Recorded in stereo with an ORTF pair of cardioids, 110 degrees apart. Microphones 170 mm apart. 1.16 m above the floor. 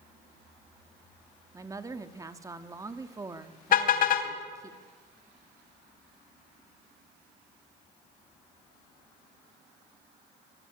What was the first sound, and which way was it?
A woman speaking, 20° right.